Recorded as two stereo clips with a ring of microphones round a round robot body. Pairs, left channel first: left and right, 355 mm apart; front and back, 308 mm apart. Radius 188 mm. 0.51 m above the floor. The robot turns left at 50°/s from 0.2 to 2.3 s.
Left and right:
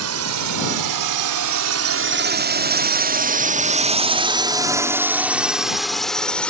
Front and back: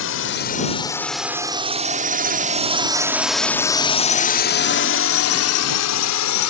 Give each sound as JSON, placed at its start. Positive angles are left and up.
{"t": 0.0, "sound": "a drone", "azimuth_deg": -45}